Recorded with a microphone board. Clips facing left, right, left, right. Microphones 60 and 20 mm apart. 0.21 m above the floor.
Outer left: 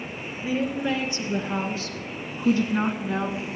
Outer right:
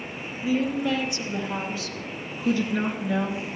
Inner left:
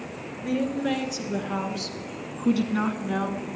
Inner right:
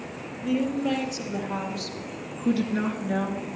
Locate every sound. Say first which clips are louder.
0.4 s a woman speaking: outer right 1 dB, inner right 1 dB; 35° left (ahead or behind), 3.5 m; by 3.4 s 50° left (ahead or behind), 1.9 m